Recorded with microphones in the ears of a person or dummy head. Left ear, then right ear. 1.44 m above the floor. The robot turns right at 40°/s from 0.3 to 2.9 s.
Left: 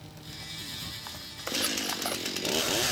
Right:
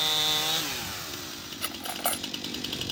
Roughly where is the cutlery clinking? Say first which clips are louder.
Right 1 dB; centre.